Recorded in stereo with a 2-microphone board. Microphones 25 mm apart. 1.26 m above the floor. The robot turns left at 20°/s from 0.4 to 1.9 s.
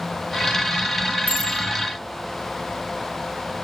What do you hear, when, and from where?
1.3 s a bicycle bell: 85° right, 5.5 m; by 1.6 s 80° right, 5.5 m